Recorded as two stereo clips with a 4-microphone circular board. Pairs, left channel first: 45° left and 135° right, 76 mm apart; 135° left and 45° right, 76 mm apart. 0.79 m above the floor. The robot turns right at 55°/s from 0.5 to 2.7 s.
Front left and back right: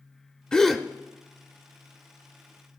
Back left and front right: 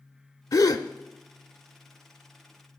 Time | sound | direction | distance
0.5 | a gasp | 125° left | 0.6 m